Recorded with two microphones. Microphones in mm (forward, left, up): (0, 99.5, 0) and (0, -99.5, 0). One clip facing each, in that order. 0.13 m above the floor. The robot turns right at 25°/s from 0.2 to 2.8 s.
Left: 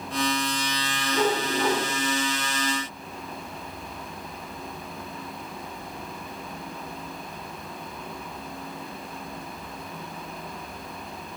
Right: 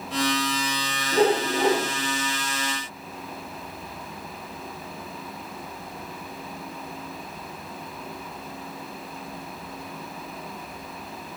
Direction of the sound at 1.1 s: 40° right (ahead or behind).